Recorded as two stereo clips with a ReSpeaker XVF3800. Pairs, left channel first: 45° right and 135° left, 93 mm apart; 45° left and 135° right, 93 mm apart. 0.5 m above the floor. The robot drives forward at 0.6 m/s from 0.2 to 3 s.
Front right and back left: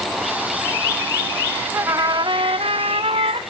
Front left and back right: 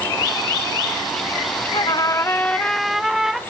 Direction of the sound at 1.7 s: 75° left.